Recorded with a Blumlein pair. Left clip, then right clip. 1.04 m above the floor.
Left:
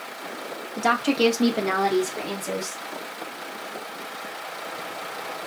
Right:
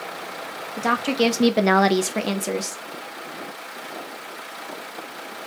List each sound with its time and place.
0.8 s a woman speaking: 10° left, 1.1 m; by 2.8 s 70° right, 1.2 m